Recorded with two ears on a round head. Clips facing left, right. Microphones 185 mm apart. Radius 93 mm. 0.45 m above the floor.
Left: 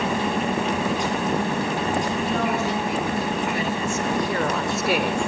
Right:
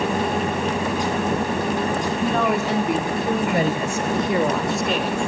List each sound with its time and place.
2.2 s a woman speaking: 55° right (ahead or behind), 3.5 m; by 5.2 s 20° left (ahead or behind), 1.5 m